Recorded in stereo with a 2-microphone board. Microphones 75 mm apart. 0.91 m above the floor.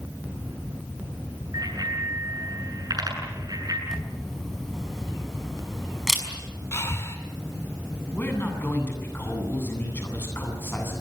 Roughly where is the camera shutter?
Centre.